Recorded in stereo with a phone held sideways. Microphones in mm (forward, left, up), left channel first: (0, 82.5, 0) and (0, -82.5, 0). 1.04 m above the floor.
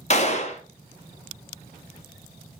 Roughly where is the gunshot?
Left.